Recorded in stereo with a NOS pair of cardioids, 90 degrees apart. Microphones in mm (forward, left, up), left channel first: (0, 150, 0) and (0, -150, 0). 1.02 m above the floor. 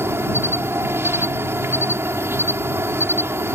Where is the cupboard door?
No cupboard door in this recording.